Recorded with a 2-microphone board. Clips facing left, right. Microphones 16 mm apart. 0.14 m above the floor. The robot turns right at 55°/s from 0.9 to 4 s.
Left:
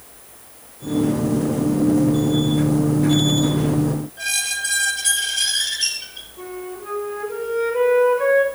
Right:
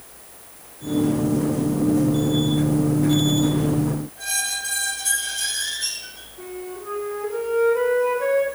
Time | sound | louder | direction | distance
4.2 | a squeak | left 3 dB | 45° left (ahead or behind) | 2.5 m
6.4 | a flute | left 1 dB | 70° left (ahead or behind) | 6 m